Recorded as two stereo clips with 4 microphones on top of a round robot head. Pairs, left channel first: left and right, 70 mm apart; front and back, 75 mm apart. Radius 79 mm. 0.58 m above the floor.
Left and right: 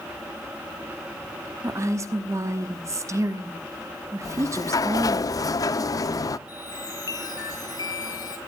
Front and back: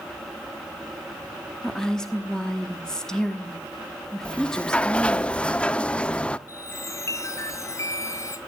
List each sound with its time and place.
1.6 s a woman speaking: 75° right, 1.2 m
4.2 s a sliding door: 75° left, 0.7 m
6.5 s a chime: 50° left, 2.5 m